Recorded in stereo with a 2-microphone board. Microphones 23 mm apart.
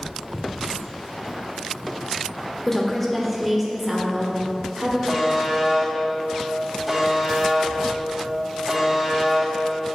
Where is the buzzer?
10° right (ahead or behind), 2.5 m.